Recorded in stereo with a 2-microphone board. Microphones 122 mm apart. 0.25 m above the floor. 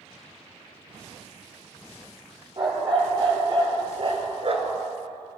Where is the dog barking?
40° right (ahead or behind), 3 m; by 4.8 s 60° right (ahead or behind), 0.9 m.